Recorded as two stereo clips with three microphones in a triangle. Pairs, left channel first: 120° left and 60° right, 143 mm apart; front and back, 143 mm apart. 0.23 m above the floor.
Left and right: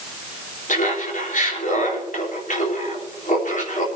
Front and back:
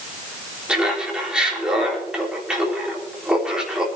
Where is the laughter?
95° left, 4 m.